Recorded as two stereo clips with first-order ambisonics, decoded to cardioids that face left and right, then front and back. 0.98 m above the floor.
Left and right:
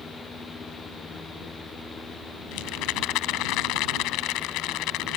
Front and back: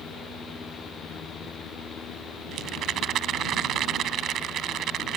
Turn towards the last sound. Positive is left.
turn(degrees=125)